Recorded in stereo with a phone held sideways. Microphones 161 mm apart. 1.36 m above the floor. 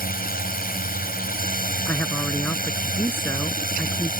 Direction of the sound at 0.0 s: 65° left (ahead or behind).